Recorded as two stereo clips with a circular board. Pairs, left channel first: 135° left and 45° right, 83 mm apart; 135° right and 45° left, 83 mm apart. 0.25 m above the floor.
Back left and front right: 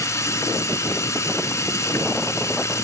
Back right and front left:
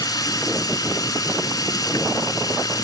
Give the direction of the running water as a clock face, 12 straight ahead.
6 o'clock.